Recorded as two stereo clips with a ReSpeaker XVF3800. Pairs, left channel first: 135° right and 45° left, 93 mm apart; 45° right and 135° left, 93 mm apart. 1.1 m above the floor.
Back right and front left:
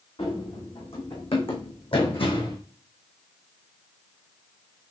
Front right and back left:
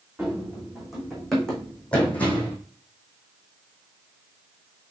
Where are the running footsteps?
145° right, 4.5 m; by 2.6 s 115° right, 3 m.